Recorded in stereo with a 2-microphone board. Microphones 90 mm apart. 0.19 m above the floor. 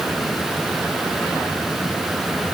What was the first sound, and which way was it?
Only background noise.